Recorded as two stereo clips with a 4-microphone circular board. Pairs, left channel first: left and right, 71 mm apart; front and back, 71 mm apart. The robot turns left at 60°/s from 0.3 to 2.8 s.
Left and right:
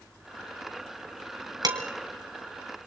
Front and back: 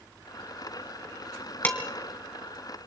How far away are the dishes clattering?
About 3 m.